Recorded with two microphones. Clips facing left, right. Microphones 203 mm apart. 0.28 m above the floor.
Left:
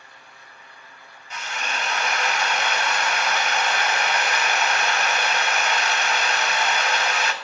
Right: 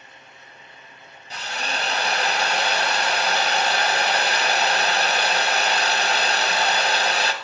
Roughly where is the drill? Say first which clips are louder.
Right 2 dB; right.